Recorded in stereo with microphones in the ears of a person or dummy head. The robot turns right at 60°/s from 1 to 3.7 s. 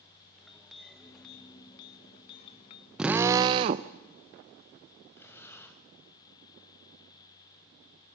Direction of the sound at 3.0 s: 175° right.